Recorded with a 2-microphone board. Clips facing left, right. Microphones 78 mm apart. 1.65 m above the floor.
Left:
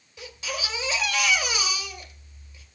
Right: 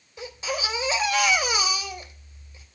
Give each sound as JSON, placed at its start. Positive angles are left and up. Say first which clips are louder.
{"t": 0.2, "sound": "a baby crying", "louder": "right 4 dB", "side_deg": -25, "distance_m": 2.0}